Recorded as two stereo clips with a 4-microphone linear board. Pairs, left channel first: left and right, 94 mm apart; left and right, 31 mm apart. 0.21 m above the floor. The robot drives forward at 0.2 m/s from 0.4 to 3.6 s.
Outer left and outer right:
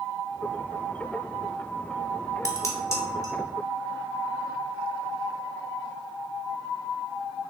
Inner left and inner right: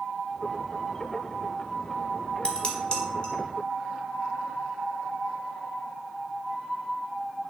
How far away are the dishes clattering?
About 0.9 m.